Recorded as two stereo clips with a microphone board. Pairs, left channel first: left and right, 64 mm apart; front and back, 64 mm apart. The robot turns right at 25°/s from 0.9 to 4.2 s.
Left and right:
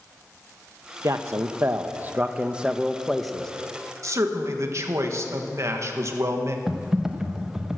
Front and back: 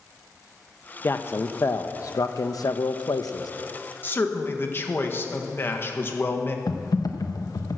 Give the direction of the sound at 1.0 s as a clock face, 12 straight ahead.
2 o'clock.